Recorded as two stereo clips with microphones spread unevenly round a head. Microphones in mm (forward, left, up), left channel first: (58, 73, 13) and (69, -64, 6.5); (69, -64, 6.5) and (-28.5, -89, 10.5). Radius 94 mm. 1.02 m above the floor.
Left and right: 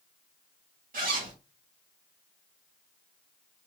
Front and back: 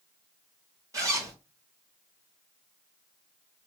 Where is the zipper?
110° right, 1.6 m.